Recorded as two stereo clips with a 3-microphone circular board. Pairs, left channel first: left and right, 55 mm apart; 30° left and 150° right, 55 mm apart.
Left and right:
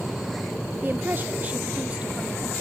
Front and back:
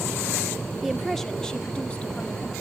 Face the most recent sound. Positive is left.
turn(degrees=-25)